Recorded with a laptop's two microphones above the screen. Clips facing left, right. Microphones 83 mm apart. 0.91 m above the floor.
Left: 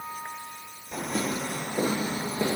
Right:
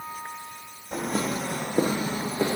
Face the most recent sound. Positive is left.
turn(degrees=-30)  # may be behind; listen again after turning